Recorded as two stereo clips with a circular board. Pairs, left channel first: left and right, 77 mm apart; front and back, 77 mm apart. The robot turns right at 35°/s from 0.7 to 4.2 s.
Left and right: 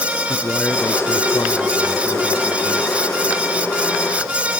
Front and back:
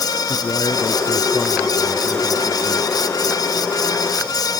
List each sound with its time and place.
0.3 s a man speaking: 25° left; by 2.9 s 105° left